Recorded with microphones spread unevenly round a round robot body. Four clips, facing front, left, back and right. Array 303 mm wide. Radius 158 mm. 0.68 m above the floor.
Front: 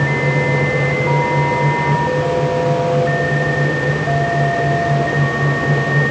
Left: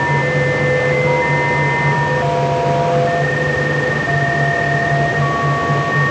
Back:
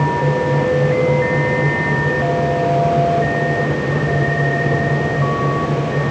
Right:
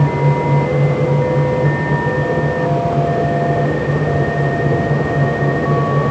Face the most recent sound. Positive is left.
No sound to turn to.